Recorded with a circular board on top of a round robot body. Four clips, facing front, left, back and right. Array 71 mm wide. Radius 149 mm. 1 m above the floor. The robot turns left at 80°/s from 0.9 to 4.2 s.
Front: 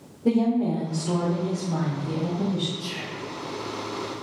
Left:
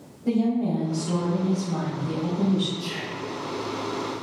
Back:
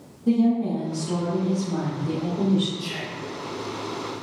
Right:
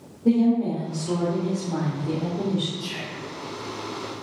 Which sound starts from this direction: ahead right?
A woman speaking, at 0.2 s.